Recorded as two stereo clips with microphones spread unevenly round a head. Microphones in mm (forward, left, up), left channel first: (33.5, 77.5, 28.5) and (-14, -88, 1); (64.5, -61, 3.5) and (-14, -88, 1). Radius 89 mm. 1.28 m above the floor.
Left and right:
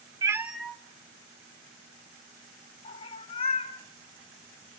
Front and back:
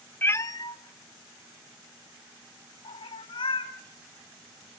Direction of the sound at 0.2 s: 35° right.